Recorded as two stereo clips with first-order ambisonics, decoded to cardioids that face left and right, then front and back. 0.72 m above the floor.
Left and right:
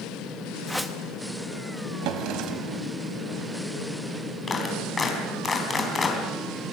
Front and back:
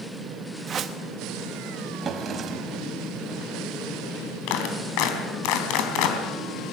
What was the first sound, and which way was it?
A whoosh, straight behind.